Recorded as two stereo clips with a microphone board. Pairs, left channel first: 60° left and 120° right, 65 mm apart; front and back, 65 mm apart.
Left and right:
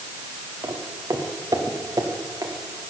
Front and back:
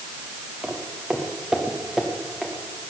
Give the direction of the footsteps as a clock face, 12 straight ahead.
4 o'clock.